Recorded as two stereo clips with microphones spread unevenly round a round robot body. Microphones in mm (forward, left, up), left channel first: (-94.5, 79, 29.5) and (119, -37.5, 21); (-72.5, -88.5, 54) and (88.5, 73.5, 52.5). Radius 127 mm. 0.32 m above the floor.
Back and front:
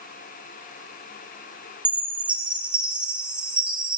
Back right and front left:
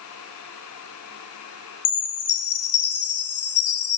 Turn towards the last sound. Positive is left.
turn(degrees=-115)